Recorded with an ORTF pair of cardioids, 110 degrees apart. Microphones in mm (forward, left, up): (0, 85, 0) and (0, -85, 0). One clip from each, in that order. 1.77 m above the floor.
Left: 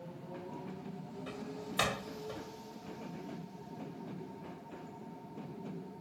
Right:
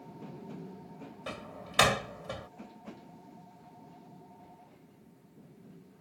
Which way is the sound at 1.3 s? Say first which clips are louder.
Right 2 dB; 50° right.